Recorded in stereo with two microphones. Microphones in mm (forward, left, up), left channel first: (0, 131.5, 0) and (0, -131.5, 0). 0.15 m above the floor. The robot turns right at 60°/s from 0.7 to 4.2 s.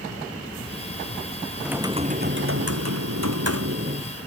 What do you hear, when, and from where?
1.6 s typing on a keyboard: straight behind; by 4.1 s 30° right